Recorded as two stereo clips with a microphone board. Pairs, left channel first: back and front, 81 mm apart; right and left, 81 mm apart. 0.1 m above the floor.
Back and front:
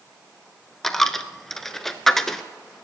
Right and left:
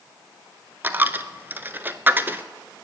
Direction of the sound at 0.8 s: 100° left.